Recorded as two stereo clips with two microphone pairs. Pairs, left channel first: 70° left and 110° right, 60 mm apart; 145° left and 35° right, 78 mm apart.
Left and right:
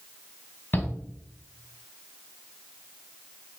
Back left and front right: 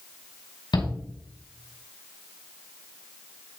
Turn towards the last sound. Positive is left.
turn(degrees=130)